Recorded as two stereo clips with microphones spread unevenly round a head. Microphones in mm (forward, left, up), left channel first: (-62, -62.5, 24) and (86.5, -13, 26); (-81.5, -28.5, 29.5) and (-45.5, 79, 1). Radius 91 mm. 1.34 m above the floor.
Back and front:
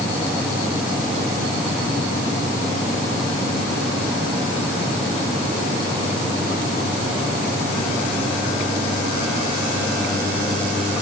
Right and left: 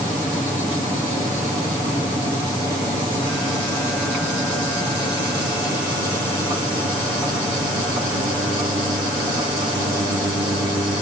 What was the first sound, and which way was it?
Only background noise.